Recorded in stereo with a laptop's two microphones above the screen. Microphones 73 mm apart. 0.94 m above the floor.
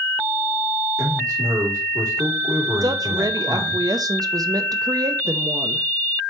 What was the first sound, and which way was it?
A man speaking, 60° right (ahead or behind).